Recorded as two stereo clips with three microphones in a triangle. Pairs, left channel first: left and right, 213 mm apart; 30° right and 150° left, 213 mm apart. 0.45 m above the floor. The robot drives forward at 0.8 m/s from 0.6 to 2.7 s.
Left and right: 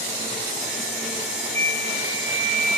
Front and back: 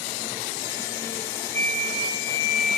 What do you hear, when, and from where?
1.5 s a flute: 35° right, 1.6 m; by 2.8 s 70° right, 1.0 m